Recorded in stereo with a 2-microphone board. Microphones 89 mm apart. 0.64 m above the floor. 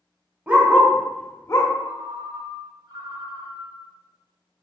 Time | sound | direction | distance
0.5 | a dog barking | 20° right (ahead or behind) | 0.9 m
1.8 | a ringtone | 60° right (ahead or behind) | 0.6 m